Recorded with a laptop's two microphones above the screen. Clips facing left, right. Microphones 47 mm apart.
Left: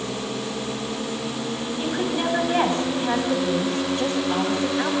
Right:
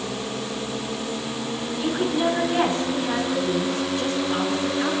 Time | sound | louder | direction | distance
1.8 | a woman speaking | right 2 dB | 40° left (ahead or behind) | 7 m